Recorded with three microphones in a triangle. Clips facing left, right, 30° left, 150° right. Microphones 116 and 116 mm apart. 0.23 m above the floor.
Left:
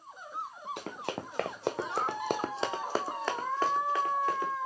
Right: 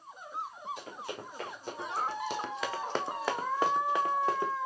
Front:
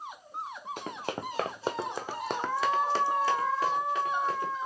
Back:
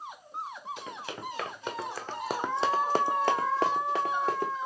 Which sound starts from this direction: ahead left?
Running footsteps, at 0.8 s.